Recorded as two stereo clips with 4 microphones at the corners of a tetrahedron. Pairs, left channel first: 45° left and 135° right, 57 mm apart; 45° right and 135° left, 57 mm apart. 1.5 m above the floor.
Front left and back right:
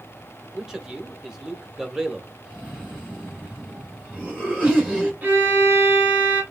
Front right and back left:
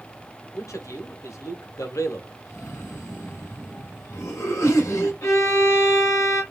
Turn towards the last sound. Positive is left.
turn(degrees=-75)